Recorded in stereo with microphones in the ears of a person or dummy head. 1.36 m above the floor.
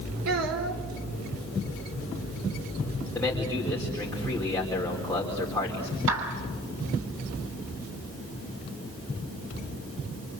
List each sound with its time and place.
0.2 s a child speaking: 80° right, 2.5 m
3.1 s a man speaking: 10° left (ahead or behind), 4 m
6.1 s a clap: 80° right, 5 m